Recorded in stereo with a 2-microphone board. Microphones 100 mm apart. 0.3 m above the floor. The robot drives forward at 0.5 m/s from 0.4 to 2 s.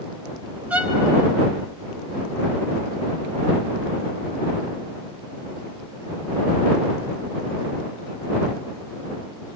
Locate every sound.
0.7 s a violin: 15° right (ahead or behind), 1.7 m